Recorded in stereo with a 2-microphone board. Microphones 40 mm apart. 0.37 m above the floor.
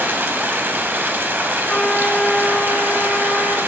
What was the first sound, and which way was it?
Running water, 65° right (ahead or behind).